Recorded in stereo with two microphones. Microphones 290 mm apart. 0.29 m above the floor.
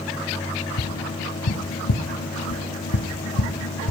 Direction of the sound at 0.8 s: 75° left (ahead or behind).